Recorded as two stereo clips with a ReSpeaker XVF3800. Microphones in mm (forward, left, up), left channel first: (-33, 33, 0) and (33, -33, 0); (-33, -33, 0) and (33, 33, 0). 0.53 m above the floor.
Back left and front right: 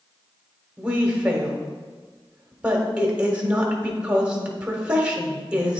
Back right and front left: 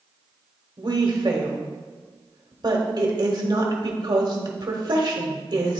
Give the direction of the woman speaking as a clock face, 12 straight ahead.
11 o'clock.